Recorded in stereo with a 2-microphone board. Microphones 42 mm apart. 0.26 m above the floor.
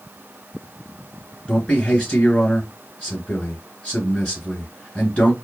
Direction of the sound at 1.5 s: 20° left (ahead or behind).